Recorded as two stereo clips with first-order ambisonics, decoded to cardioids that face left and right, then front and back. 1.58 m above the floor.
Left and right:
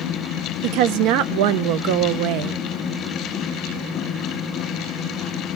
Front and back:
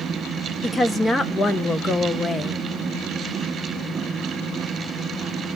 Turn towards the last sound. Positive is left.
turn(degrees=-80)